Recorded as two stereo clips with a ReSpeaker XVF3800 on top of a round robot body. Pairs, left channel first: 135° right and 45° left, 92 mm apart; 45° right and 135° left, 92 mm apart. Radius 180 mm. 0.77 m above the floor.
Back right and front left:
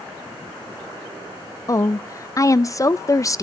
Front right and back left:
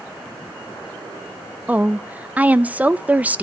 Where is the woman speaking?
160° right, 0.5 m.